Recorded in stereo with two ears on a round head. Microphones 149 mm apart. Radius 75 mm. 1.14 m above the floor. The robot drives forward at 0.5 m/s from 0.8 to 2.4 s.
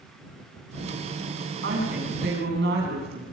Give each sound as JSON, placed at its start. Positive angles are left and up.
{"t": 1.6, "sound": "a woman speaking", "side_deg": -75, "distance_m": 8.0}